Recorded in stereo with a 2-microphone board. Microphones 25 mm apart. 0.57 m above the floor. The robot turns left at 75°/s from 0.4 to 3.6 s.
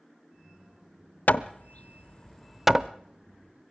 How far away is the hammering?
About 0.7 m.